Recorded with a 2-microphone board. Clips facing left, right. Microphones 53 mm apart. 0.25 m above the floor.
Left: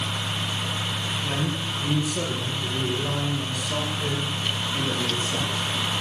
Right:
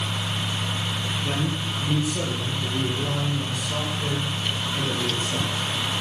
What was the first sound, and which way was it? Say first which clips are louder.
A man speaking: right 1 dB; 15° right (ahead or behind).